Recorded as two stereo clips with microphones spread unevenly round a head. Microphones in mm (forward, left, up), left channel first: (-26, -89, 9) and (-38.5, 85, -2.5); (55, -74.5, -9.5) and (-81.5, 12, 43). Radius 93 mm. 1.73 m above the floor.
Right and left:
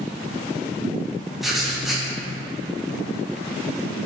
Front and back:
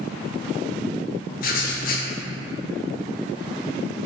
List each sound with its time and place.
1.4 s writing: straight ahead, 0.9 m